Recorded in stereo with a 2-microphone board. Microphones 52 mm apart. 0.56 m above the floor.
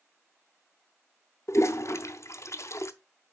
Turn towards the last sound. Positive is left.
turn(degrees=65)  # may be behind; listen again after turning